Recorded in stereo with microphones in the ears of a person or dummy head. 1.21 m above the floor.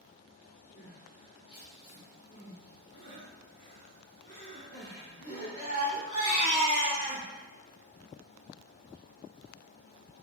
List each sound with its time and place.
0.8 s crying: 35° left (ahead or behind), 1.7 m